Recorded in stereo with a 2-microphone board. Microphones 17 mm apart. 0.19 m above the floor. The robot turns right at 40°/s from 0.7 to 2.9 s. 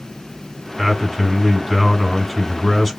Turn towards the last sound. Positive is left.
turn(degrees=20)